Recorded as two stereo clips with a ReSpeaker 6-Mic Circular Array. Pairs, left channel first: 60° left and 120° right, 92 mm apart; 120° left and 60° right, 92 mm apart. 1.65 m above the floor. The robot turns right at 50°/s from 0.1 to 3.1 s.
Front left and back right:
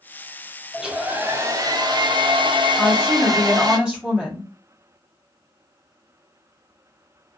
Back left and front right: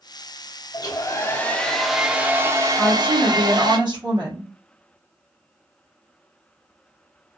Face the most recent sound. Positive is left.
turn(degrees=-40)